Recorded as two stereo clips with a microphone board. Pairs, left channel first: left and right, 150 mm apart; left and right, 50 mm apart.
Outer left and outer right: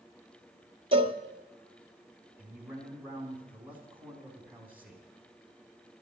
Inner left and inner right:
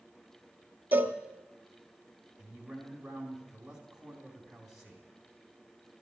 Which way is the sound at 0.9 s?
40° right (ahead or behind).